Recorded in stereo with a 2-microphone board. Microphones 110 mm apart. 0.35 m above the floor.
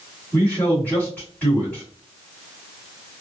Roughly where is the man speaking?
Centre.